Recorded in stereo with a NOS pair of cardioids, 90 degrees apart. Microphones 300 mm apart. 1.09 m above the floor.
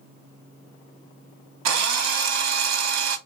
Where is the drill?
65° right, 0.7 m.